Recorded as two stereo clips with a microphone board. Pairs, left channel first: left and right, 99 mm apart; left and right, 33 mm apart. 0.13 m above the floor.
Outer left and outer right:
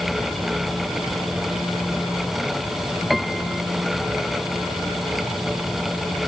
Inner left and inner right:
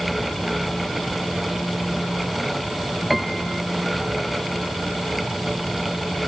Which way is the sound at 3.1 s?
Centre (ahead or behind).